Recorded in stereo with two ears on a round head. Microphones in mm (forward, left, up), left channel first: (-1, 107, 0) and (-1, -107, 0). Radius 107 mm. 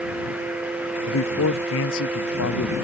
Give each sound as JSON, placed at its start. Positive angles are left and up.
{"t": 1.1, "sound": "a man speaking", "side_deg": 60}